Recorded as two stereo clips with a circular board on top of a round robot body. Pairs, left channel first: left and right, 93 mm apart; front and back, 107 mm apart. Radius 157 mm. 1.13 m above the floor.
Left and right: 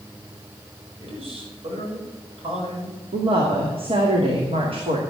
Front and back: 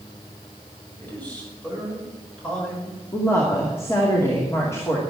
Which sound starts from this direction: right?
A man speaking, at 1.0 s.